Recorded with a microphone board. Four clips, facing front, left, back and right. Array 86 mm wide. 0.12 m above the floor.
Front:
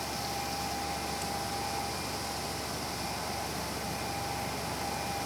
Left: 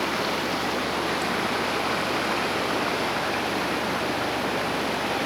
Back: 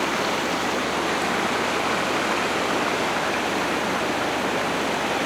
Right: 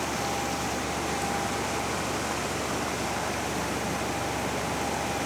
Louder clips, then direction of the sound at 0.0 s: Left 3 dB, back 12 dB; 160° left.